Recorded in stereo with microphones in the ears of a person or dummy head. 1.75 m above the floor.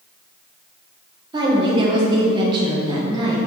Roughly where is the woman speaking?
Right.